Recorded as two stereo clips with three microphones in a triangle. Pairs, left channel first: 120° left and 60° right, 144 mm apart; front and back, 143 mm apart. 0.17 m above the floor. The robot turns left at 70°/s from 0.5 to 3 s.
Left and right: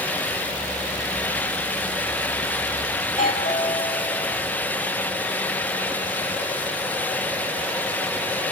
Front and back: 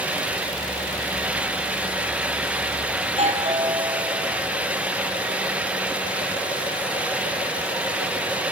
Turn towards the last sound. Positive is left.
turn(degrees=145)